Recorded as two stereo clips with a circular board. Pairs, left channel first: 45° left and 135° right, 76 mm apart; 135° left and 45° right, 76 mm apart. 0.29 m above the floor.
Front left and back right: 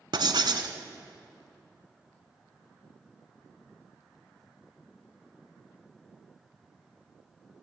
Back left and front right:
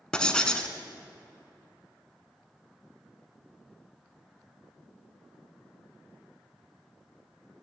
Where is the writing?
145° right, 0.9 m.